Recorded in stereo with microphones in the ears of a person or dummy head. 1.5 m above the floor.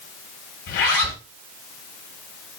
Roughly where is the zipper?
Left.